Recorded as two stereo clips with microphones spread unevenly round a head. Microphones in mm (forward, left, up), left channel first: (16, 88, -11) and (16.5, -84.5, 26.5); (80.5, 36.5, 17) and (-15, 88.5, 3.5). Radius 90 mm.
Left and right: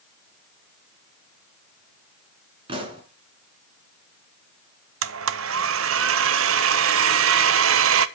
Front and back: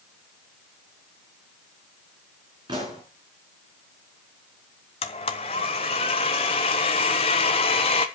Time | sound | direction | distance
2.7 | a pop | 140° right | 2.5 m
5.0 | a blender | 85° right | 0.7 m